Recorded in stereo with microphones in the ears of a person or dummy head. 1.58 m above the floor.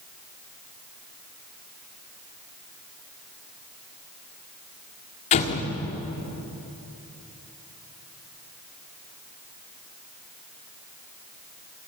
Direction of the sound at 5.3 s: 40° left (ahead or behind).